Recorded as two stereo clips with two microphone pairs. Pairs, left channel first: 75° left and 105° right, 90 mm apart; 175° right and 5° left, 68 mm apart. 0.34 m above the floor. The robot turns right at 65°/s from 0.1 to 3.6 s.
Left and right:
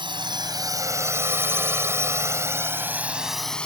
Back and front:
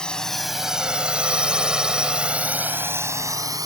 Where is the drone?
100° right; by 3.7 s 5° right.